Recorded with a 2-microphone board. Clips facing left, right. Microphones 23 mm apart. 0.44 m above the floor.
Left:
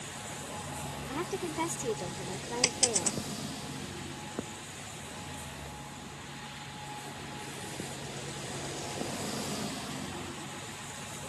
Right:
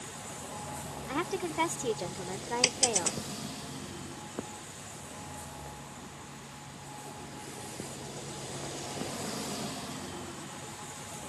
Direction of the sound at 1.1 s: 30° right (ahead or behind).